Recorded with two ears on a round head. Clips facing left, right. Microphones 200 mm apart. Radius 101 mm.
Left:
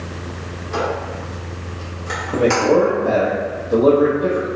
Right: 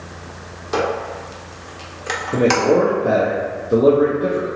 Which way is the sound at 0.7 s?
70° right (ahead or behind).